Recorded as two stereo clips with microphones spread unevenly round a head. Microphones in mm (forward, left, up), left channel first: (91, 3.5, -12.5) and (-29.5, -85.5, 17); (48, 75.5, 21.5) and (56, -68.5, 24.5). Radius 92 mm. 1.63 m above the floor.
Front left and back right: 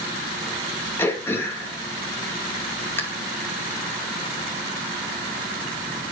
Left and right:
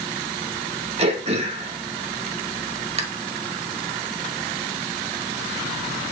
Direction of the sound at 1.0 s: 40° right.